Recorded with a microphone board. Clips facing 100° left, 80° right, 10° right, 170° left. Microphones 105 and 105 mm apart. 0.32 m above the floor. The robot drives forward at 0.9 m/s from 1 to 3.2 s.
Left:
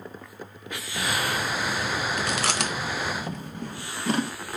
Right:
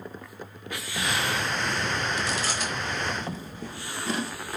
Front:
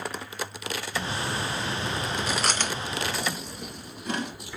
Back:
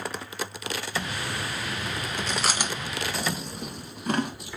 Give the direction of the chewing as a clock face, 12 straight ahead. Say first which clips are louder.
Left 2 dB, back 1 dB; 10 o'clock.